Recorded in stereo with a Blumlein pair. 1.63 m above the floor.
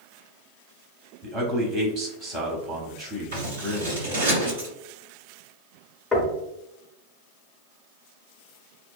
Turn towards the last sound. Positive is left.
turn(degrees=10)